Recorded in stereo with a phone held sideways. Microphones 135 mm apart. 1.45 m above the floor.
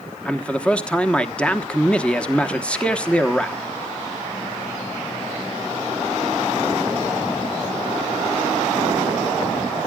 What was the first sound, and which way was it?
A man speaking, 10° left (ahead or behind).